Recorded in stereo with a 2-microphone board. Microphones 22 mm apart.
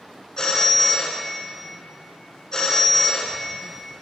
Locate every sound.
0.4 s a phone ringing: 35° left (ahead or behind), 1.4 m